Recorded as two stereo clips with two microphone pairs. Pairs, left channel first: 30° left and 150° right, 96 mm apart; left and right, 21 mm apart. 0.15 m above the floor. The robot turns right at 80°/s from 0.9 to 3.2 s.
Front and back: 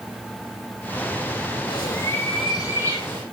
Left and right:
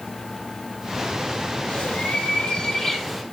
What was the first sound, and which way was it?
A bird, 60° left.